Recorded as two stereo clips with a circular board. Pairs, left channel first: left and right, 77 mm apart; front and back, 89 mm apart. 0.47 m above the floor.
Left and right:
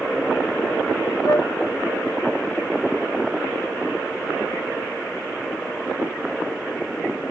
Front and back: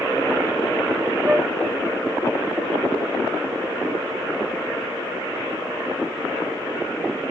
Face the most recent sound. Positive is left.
turn(degrees=110)